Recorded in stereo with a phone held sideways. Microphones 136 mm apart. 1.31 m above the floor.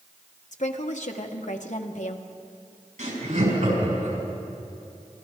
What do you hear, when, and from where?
0.5 s a woman speaking: 65° left (ahead or behind), 1.1 m
3.0 s laughter: 80° right, 5.5 m